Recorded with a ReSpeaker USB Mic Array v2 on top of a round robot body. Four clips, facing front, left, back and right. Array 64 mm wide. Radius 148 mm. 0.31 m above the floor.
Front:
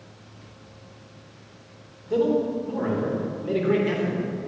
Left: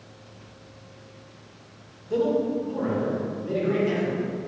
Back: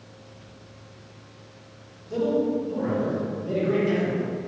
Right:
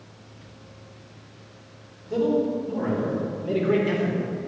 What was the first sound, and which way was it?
A man speaking, 15° left.